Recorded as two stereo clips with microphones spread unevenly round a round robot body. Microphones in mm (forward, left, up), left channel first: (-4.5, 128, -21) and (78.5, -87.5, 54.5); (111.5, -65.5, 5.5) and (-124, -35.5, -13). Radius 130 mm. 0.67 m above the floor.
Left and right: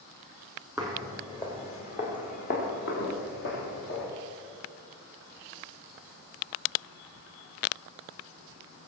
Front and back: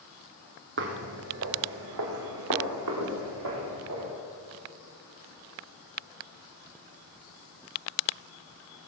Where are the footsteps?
150° right, 1.9 m; by 4.1 s 160° left, 5.5 m.